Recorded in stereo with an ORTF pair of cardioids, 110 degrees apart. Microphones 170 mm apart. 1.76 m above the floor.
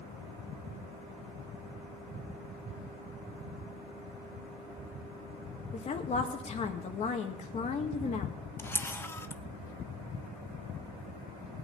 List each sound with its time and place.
5.7 s a woman speaking: 40° left, 2 m
8.6 s a camera shutter: 15° left, 0.7 m